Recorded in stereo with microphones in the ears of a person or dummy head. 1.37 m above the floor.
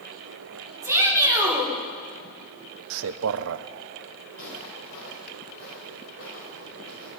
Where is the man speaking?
65° right (ahead or behind), 0.6 m.